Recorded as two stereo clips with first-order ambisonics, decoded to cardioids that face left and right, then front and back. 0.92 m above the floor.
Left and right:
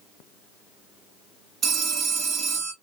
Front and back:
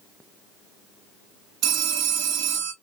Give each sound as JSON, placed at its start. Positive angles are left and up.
{"t": 1.6, "sound": "a phone ringing", "azimuth_deg": -150, "distance_m": 1.1}